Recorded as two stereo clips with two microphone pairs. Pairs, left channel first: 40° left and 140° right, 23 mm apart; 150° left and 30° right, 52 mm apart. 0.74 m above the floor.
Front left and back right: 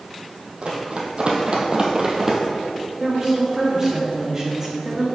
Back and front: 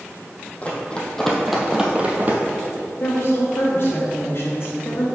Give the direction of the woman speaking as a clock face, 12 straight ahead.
7 o'clock.